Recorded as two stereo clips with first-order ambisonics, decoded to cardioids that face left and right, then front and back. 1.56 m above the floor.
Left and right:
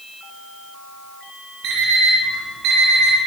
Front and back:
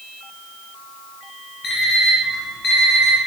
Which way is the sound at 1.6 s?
65° right.